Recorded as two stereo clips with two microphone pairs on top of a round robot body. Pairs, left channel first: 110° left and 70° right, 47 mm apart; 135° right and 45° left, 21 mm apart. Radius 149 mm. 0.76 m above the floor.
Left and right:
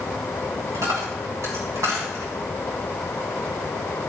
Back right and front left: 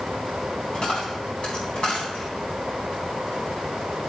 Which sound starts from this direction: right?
A dropped coin, at 0.7 s.